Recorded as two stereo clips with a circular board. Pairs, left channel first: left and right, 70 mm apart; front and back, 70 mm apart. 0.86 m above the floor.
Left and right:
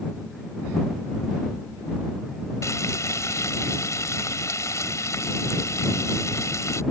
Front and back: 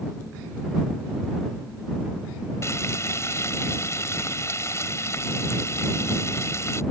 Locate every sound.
2.6 s frying: 45° left